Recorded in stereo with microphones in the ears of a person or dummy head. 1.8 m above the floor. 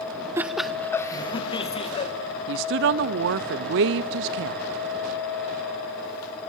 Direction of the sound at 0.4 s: 20° right (ahead or behind).